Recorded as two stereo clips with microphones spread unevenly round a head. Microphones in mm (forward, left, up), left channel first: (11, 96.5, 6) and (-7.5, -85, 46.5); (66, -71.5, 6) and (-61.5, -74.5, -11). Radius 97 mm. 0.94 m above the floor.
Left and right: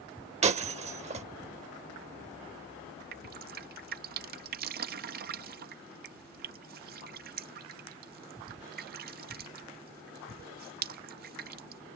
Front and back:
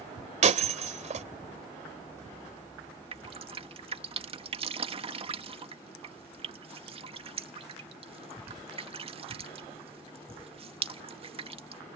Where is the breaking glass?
150° right.